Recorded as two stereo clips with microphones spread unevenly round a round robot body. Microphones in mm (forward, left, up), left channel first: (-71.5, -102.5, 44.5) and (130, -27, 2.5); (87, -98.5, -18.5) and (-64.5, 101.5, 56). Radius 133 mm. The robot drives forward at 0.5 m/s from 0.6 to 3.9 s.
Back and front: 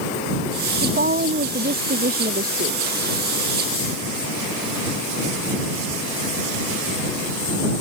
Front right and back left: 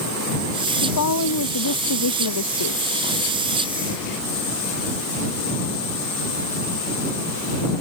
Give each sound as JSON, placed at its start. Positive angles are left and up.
{"t": 0.8, "sound": "a woman speaking", "azimuth_deg": -25}